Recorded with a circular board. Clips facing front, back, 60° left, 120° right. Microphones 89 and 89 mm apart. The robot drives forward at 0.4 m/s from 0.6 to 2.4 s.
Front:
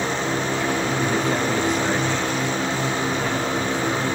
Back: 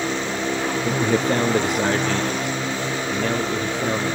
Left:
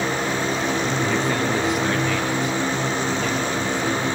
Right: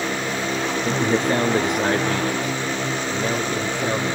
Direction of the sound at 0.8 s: Straight behind.